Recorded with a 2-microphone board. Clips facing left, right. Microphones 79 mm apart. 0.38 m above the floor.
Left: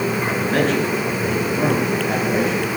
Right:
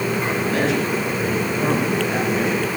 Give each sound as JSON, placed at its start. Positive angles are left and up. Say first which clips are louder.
{"t": 0.3, "sound": "a man speaking", "louder": "left 2 dB", "side_deg": 40, "distance_m": 5.0}